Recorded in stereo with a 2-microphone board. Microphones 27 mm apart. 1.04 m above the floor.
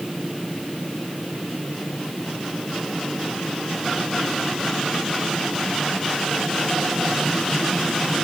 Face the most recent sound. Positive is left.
No sound to turn to.